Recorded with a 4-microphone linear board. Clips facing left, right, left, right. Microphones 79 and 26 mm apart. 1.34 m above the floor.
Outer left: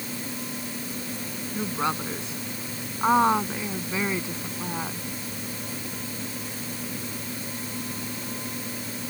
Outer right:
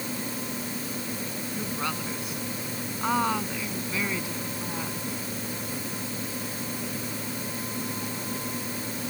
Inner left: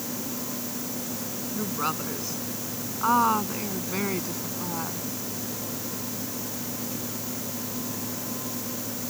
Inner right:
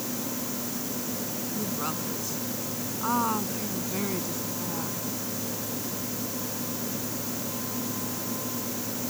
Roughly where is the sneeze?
No sneeze in this recording.